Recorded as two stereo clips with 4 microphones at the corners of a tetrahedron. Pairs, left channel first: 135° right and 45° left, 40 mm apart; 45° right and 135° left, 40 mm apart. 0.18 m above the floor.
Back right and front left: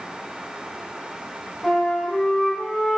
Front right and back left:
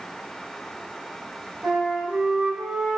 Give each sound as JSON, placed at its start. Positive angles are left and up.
{"t": 1.6, "sound": "a flute", "azimuth_deg": 155, "distance_m": 0.9}